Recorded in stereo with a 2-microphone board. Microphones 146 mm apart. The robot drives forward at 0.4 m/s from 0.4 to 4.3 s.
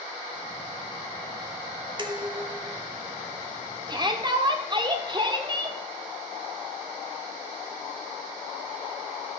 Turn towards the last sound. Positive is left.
turn(degrees=-30)  # may be behind; listen again after turning